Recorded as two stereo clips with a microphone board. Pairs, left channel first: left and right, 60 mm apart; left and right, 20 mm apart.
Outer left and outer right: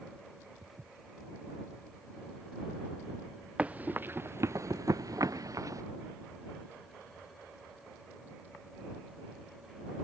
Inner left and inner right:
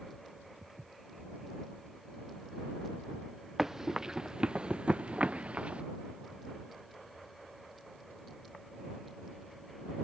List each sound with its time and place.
0.6 s footsteps: 35° right (ahead or behind); by 3.2 s 5° right (ahead or behind)
3.6 s running footsteps: 25° right (ahead or behind); by 5.8 s 70° right (ahead or behind)